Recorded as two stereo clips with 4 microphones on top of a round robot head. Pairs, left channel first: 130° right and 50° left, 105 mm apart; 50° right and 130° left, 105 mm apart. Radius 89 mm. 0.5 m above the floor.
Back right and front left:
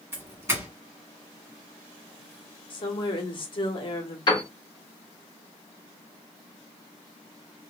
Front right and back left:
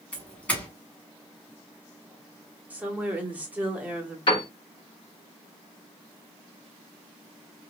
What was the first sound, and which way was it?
A doorbell, 10° left.